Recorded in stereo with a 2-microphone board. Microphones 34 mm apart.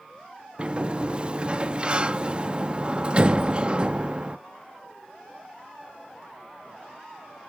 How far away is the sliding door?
About 1.1 m.